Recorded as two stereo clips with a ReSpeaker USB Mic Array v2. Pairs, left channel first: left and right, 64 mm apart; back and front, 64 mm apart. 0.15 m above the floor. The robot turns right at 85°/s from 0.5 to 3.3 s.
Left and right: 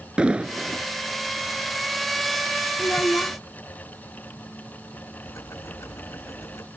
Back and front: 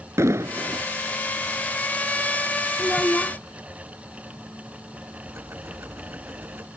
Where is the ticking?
50° left.